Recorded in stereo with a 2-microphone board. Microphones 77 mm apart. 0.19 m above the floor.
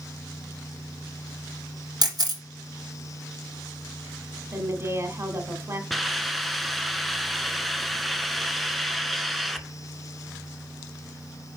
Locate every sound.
2.0 s a camera shutter: 60° right (ahead or behind), 1.7 m
4.5 s a woman speaking: 35° right (ahead or behind), 1.4 m
5.9 s a hiss: centre (ahead or behind), 0.6 m